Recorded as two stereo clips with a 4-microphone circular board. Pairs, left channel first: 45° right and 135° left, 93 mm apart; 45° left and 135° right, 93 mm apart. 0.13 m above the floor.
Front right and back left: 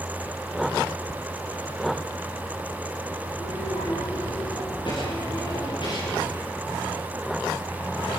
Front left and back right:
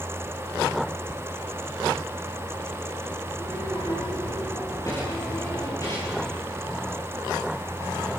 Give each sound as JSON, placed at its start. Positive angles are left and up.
{"t": 3.3, "sound": "a child speaking", "azimuth_deg": -15, "distance_m": 8.0}